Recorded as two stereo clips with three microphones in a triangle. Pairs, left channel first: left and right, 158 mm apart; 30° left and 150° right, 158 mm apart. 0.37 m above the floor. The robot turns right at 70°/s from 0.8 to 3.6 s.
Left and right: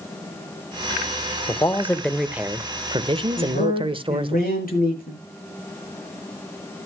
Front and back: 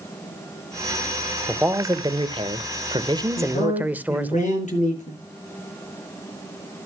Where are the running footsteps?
I don't hear running footsteps.